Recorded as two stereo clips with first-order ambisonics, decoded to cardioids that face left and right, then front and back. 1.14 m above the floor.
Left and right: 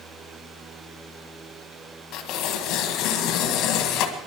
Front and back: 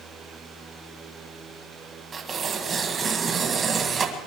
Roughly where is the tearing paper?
Behind left.